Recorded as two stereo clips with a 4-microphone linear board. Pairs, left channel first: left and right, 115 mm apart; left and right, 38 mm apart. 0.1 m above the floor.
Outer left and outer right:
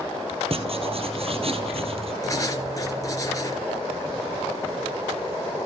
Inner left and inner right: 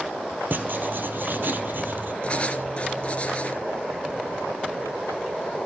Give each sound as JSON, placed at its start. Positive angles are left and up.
{"t": 0.5, "sound": "writing", "side_deg": -60, "distance_m": 1.6}
{"t": 2.2, "sound": "writing", "side_deg": 30, "distance_m": 1.9}